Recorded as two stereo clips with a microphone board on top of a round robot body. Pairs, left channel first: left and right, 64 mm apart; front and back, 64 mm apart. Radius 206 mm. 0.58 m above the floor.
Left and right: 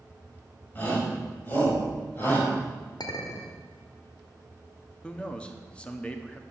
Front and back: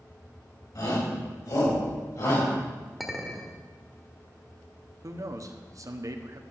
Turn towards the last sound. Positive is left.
turn(degrees=160)